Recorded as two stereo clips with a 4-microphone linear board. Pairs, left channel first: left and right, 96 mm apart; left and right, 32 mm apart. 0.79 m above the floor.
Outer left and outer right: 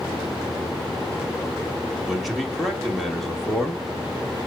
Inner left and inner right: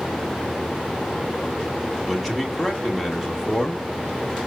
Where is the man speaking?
Centre (ahead or behind), 2 m.